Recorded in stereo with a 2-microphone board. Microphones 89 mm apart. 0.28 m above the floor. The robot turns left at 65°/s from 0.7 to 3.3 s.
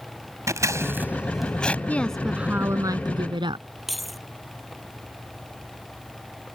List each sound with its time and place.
0.5 s scissors: 35° right (ahead or behind); by 1.8 s 20° left (ahead or behind)
1.9 s a woman speaking: 20° left; by 3.6 s 75° right
3.9 s keys jangling: centre (ahead or behind)